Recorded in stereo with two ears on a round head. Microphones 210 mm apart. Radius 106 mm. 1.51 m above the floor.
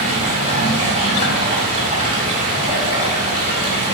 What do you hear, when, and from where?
0.0 s running water: 40° right (ahead or behind), 4 m